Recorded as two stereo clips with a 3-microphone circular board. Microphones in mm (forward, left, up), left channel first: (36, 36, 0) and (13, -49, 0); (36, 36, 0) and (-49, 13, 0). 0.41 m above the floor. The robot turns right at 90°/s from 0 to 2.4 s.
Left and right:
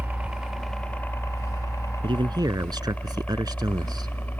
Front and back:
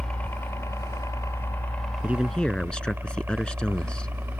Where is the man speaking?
100° right; by 4.1 s 65° right.